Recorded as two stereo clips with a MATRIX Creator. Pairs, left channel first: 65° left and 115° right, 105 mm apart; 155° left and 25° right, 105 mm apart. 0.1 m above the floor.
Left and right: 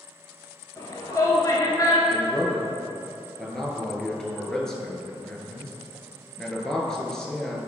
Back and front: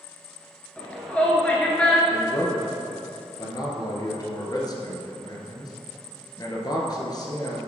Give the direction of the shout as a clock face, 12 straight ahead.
9 o'clock.